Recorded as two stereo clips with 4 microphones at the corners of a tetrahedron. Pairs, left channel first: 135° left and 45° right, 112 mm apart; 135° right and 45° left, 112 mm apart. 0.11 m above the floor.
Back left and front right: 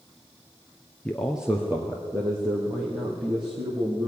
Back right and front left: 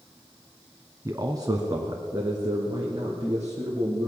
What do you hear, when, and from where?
1.1 s a man speaking: 65° left, 1.2 m; by 4.1 s 10° right, 4 m